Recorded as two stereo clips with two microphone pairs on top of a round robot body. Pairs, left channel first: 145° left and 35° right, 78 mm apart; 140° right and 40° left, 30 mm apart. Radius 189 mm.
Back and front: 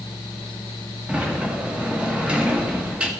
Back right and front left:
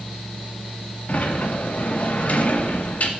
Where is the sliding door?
110° right, 1.4 m.